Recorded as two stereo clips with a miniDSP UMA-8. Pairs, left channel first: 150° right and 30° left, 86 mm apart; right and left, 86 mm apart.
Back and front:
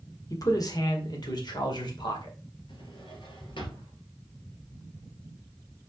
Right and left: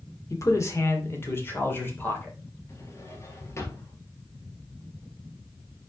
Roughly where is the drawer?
Behind right.